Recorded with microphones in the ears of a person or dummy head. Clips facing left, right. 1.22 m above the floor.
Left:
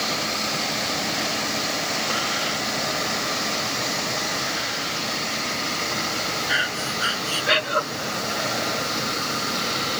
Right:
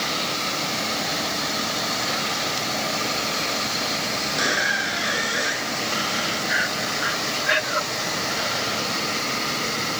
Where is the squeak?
80° right.